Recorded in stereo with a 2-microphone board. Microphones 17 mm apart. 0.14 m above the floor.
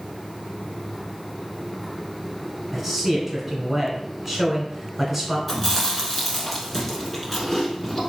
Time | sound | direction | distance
2.7 | a man speaking | 15° right (ahead or behind) | 1.3 m
5.5 | chewing | 10° left (ahead or behind) | 1.2 m